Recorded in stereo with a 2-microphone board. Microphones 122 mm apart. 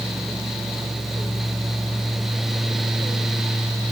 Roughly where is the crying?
I don't hear crying.